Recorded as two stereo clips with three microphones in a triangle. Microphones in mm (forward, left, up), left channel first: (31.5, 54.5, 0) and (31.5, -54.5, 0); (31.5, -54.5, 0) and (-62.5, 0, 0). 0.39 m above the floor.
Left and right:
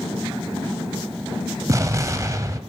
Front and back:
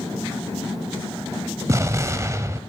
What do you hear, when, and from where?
1.7 s an explosion: 150° right, 0.7 m